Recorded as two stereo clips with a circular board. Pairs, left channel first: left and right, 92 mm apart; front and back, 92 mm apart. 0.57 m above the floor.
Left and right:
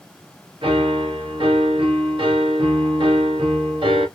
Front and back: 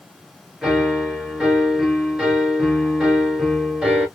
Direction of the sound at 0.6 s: 100° right.